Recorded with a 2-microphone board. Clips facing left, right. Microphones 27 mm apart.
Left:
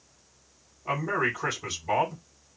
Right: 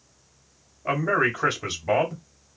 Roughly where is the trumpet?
I don't hear a trumpet.